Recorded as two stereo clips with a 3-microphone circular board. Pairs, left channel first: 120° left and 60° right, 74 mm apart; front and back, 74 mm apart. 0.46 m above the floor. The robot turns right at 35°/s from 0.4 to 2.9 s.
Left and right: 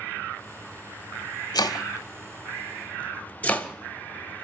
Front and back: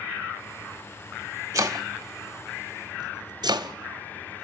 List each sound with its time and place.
1.5 s chopping: 140° left, 1.4 m; by 4.4 s 170° right, 1.4 m